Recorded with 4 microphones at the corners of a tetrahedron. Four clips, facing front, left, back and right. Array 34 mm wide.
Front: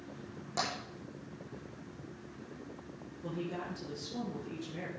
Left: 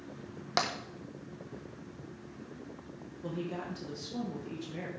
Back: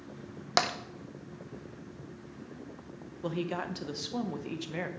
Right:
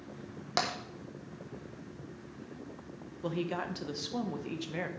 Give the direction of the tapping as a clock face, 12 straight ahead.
6 o'clock.